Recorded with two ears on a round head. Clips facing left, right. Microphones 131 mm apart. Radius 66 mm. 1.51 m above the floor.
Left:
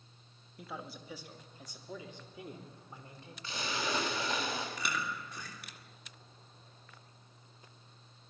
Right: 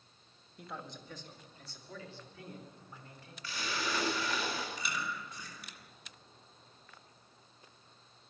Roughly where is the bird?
I don't hear a bird.